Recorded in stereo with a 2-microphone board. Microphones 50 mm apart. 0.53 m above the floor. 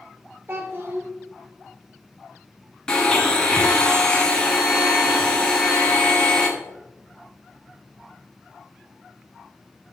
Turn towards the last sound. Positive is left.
turn(degrees=15)  # may be behind; listen again after turning